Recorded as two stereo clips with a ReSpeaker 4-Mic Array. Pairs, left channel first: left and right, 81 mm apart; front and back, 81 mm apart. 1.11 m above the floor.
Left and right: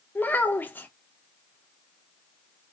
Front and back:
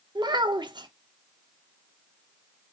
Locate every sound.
0.1 s a child speaking: 160° left, 0.5 m